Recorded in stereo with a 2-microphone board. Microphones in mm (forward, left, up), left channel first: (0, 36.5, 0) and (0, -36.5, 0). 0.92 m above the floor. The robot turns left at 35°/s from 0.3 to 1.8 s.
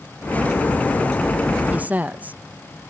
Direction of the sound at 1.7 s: 20° right (ahead or behind).